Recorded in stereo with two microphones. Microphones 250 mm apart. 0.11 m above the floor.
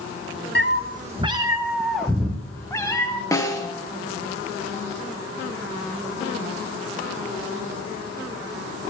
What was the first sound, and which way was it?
A cat meowing, 50° right (ahead or behind).